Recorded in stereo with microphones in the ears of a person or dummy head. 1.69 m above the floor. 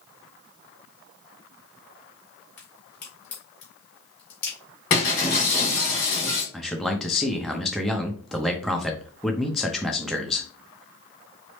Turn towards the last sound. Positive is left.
turn(degrees=0)  # may be behind; listen again after turning